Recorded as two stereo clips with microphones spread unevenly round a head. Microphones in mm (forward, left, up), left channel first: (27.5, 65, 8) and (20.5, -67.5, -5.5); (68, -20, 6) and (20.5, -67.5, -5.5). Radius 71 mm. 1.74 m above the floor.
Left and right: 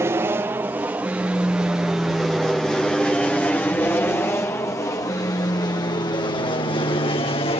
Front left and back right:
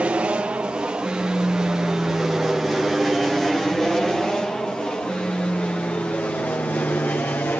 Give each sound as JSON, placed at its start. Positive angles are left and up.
{"t": 0.0, "sound": "an aircraft", "azimuth_deg": -115}